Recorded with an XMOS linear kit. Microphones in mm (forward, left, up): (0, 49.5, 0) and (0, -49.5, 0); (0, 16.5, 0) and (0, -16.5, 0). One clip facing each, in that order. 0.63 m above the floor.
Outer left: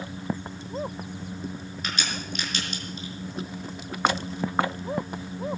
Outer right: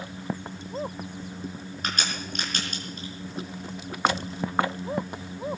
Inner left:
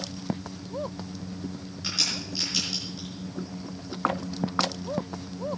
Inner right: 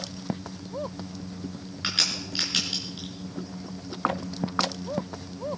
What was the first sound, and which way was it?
A crack, 45° right (ahead or behind).